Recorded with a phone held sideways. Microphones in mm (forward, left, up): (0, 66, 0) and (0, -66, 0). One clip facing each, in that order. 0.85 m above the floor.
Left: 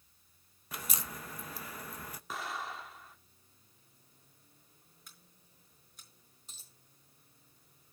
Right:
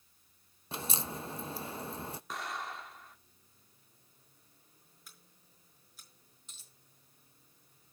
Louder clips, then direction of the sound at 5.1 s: Even; centre (ahead or behind).